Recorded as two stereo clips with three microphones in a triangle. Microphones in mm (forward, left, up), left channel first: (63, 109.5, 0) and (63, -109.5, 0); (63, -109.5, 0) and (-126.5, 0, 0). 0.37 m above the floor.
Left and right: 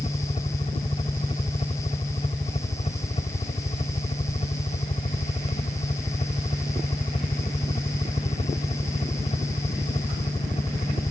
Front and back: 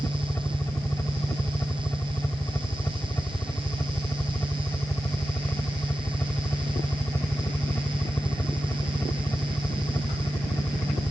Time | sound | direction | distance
0.0 | a helicopter | 45° left | ?